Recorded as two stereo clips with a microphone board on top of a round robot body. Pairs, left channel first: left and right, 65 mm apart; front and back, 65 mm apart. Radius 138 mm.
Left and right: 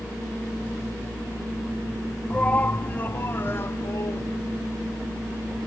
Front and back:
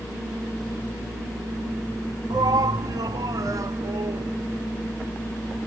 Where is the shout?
160° left; by 4.3 s 140° left.